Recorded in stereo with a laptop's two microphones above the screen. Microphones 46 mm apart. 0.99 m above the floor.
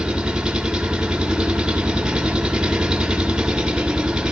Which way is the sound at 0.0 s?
20° right (ahead or behind).